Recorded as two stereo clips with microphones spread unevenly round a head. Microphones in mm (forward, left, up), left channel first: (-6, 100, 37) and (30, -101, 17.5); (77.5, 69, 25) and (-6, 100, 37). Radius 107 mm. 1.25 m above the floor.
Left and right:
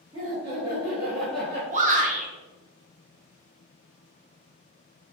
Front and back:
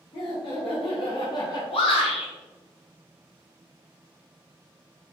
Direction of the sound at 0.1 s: 20° right.